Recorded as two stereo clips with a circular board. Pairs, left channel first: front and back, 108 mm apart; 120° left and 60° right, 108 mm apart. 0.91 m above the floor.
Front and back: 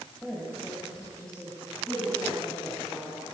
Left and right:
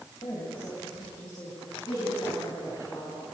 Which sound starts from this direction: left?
A woman speaking, at 0.2 s.